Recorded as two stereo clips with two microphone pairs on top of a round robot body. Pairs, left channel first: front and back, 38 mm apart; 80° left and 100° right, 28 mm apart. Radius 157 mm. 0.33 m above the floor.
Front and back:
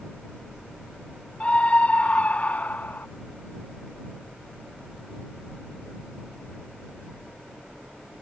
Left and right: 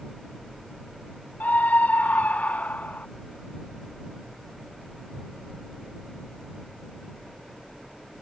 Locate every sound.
1.4 s a scream: 65° left; by 3.1 s 50° left